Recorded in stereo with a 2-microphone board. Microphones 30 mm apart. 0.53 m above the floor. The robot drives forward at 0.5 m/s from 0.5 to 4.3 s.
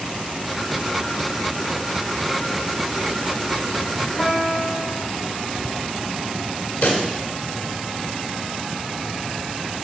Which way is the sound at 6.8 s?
45° left (ahead or behind).